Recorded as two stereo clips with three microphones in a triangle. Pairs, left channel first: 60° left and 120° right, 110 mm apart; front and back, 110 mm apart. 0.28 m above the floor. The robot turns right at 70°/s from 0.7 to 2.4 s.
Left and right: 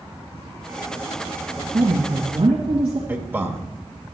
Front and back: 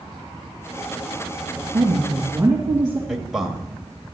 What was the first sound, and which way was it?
A woman speaking, 135° right.